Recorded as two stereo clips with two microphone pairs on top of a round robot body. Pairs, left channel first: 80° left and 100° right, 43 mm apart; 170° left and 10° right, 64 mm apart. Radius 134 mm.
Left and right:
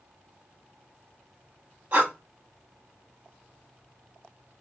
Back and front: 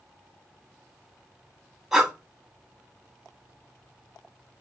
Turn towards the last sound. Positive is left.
turn(degrees=-85)